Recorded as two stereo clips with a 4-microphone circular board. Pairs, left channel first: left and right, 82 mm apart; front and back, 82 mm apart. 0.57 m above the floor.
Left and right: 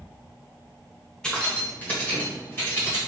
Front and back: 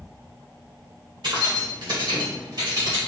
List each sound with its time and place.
1.2 s keys jangling: 170° left, 1.4 m; by 3.0 s 150° left, 2.5 m